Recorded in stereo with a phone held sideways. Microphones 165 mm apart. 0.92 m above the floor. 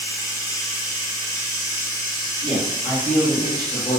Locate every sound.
0.0 s running water: 20° left (ahead or behind), 1.3 m
2.4 s a man speaking: 55° left (ahead or behind), 1.6 m